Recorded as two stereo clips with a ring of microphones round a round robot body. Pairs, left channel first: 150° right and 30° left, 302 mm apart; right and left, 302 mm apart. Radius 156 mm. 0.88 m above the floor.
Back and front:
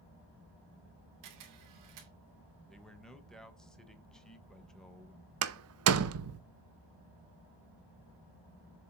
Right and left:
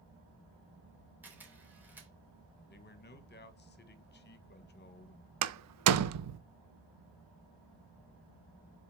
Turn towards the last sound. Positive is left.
turn(degrees=65)